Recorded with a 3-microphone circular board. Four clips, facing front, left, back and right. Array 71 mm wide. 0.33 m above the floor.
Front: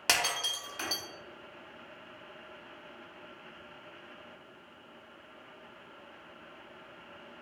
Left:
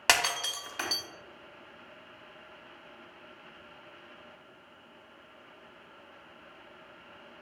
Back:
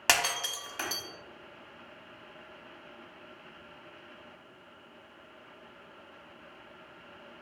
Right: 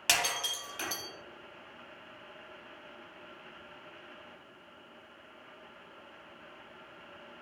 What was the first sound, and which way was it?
Breaking glass, 115° left.